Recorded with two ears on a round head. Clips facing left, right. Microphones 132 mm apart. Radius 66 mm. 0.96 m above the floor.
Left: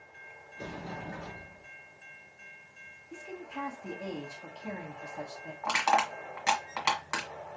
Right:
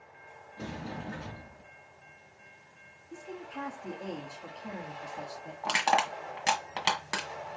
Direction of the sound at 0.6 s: 55° right (ahead or behind).